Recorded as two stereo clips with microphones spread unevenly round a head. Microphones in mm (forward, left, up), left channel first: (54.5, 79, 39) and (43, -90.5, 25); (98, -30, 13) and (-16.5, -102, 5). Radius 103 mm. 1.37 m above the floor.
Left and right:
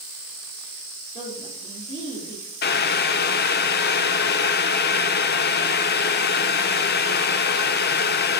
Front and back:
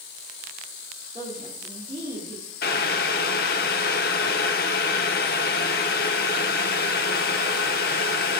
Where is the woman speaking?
145° left, 3 m.